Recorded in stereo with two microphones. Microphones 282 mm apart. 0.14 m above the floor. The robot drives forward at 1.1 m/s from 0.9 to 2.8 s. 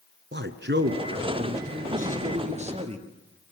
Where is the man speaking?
40° right (ahead or behind), 1.7 m; by 3.1 s 20° right (ahead or behind), 3 m.